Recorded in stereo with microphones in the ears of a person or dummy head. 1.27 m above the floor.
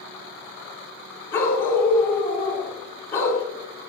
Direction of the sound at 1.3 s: 15° left (ahead or behind).